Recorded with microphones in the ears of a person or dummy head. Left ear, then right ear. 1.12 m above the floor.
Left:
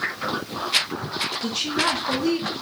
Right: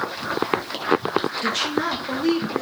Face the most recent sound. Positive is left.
turn(degrees=-10)  # may be behind; listen again after turning